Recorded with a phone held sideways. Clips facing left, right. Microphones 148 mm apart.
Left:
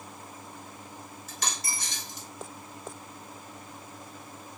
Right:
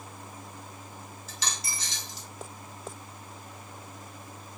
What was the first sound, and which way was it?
A dropped coin, 50° left (ahead or behind).